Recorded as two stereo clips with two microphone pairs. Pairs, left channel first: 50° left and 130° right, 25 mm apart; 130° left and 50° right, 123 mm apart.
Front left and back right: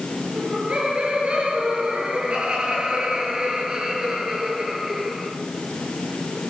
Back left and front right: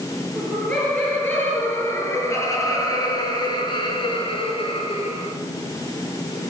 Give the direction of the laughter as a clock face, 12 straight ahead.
5 o'clock.